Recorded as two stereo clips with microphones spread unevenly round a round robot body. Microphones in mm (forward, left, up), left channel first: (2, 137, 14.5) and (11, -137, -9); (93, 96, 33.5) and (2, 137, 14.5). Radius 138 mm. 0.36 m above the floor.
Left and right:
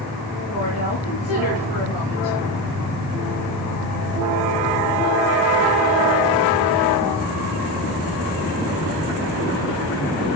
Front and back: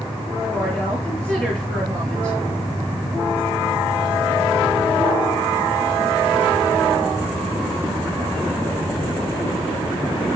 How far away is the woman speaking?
About 6 m.